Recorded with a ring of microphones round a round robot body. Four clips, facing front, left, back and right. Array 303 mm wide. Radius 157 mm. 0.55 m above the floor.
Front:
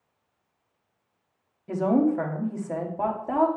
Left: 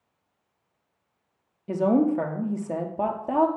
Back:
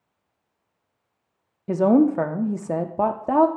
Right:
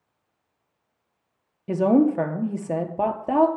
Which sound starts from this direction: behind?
A woman speaking, at 1.7 s.